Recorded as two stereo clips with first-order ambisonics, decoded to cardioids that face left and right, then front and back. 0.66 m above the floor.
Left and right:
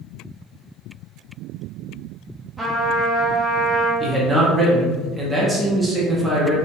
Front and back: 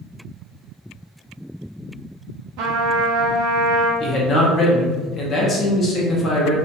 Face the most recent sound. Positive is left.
turn(degrees=-25)